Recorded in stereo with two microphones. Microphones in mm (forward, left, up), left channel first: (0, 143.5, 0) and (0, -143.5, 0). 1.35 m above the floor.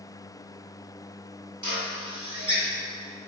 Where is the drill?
75° right (ahead or behind), 3.5 m.